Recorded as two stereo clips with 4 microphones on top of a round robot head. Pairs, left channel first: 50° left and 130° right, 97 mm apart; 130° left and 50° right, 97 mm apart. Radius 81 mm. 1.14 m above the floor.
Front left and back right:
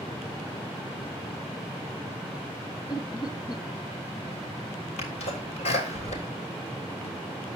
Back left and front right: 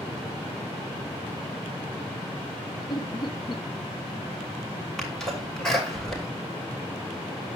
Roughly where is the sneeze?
Ahead left.